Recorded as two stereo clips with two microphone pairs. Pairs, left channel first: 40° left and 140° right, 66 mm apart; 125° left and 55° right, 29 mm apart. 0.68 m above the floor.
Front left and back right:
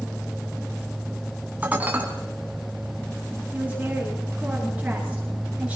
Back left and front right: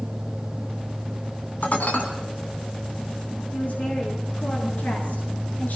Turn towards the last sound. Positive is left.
turn(degrees=140)